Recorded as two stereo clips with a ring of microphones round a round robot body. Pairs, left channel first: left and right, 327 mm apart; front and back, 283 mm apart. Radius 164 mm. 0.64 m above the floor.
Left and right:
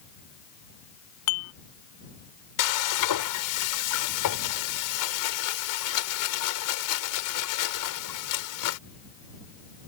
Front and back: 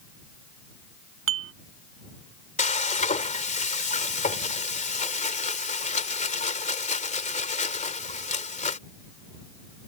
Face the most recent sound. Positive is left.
turn(degrees=65)